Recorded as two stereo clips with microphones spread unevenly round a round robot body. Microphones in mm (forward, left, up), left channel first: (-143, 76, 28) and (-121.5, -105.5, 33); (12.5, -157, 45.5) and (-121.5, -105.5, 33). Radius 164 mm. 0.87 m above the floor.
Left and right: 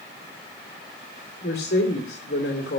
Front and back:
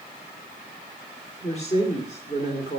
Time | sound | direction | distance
1.4 | a woman speaking | 45° left | 2 m